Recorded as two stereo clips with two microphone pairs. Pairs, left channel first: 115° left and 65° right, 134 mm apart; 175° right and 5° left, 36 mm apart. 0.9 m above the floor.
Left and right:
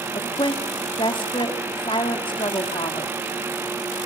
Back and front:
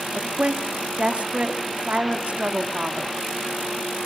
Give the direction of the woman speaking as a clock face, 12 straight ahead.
10 o'clock.